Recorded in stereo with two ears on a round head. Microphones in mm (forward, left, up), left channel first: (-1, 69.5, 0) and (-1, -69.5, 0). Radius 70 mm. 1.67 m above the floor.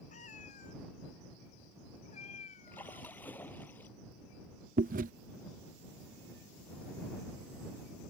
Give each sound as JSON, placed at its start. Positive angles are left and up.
{"t": 0.1, "sound": "a cat meowing", "side_deg": 45}
{"t": 2.7, "sound": "a splash", "side_deg": 10}
{"t": 4.8, "sound": "chewing", "side_deg": -50}